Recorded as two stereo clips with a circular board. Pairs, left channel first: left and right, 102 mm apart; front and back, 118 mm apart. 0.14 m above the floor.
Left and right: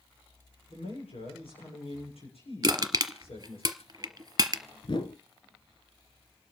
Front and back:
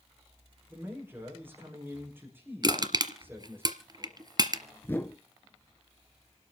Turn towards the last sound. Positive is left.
turn(degrees=70)